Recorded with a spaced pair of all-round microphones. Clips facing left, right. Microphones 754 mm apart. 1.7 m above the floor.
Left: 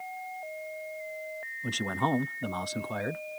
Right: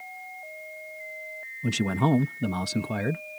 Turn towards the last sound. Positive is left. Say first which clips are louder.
# right 7 dB
turn(degrees=-65)  # may be behind; listen again after turning